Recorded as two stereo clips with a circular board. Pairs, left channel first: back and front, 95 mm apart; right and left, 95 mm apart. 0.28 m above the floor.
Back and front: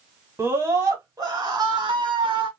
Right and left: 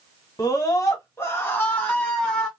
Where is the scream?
55° right, 1.4 m; by 2.5 s 5° right, 1.7 m.